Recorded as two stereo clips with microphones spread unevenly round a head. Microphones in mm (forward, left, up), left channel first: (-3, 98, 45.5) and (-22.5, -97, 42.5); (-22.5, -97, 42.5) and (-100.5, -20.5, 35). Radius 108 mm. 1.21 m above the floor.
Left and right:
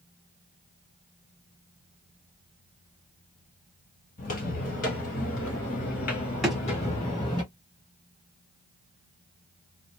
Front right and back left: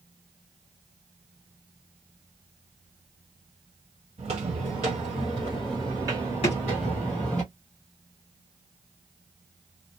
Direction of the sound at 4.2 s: 120° left.